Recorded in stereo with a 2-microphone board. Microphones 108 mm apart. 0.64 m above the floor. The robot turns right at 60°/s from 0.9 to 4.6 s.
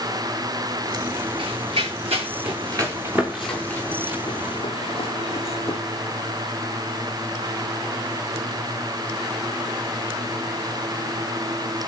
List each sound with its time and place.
1.4 s running footsteps: 55° right (ahead or behind), 7.5 m; by 5.8 s 75° left (ahead or behind), 2.5 m